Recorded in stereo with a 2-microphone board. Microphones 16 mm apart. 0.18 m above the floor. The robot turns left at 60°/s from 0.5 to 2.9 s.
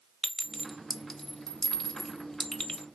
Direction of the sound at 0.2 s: 5° right (ahead or behind).